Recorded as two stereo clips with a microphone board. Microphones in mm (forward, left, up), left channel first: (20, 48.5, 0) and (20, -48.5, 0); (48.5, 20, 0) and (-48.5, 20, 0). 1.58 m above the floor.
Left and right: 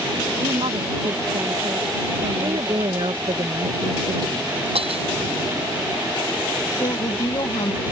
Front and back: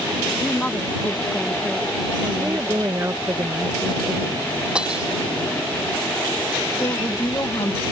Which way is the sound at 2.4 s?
120° right.